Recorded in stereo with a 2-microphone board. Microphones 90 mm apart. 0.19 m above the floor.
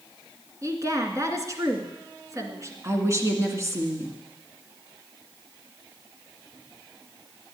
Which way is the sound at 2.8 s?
30° right (ahead or behind).